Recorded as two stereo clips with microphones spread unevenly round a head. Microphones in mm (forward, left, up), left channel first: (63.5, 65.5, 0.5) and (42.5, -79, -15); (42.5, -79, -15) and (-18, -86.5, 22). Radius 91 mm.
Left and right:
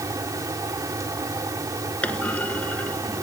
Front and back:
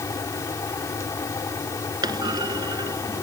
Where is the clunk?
165° left.